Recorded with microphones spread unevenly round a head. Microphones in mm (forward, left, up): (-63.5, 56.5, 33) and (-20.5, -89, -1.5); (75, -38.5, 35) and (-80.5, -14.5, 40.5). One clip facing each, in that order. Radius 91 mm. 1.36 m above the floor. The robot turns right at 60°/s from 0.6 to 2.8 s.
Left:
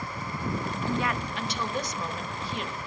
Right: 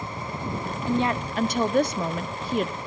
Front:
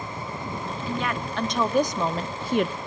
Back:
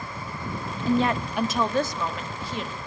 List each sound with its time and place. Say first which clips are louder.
0.9 s a woman speaking: right 7 dB, back 8 dB; 140° right, 0.7 m; by 2.8 s 25° right, 0.7 m